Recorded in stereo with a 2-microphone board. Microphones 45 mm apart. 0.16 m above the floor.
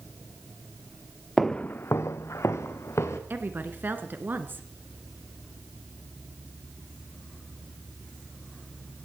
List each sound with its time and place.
1.4 s footsteps: centre (ahead or behind), 0.6 m; by 3.2 s 75° left (ahead or behind), 2.5 m
3.3 s a woman speaking: 50° right (ahead or behind), 1.6 m